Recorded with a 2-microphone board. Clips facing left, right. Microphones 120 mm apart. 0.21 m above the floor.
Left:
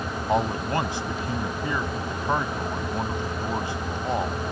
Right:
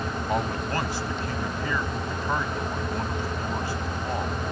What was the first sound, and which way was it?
A man speaking, 20° left (ahead or behind).